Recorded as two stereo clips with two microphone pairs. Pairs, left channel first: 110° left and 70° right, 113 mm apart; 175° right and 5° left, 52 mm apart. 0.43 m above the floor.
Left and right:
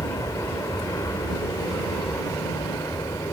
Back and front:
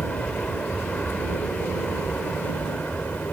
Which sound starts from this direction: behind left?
An aircraft, at 0.0 s.